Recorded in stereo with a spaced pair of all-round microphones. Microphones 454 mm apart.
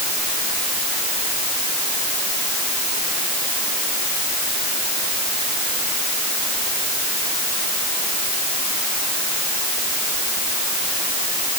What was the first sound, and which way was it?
Only background noise.